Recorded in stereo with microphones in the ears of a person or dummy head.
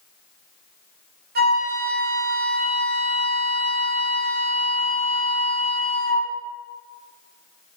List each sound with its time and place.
1.4 s a flute: 50° right (ahead or behind), 0.6 m